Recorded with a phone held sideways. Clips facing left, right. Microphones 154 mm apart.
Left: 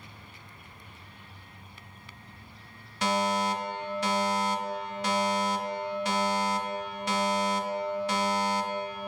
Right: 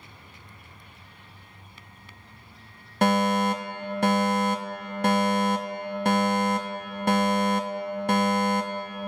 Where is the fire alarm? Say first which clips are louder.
Right 5 dB; 55° right (ahead or behind), 0.9 m.